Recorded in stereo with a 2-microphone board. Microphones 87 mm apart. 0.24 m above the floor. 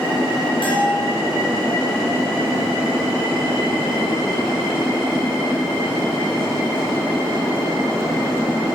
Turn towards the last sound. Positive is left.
turn(degrees=60)  # may be behind; listen again after turning